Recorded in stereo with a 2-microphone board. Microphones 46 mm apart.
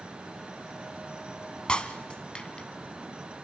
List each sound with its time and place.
1.7 s breaking glass: 20° left (ahead or behind), 0.9 m